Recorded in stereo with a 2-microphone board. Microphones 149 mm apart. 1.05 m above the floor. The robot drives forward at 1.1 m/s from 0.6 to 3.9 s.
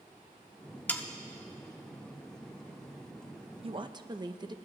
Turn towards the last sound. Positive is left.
turn(degrees=-30)  # may be behind; listen again after turning